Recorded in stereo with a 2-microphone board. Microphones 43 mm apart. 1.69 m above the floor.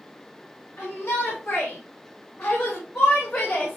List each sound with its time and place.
0.8 s a shout: 70° left (ahead or behind), 3 m; by 3.8 s 30° left (ahead or behind), 2.5 m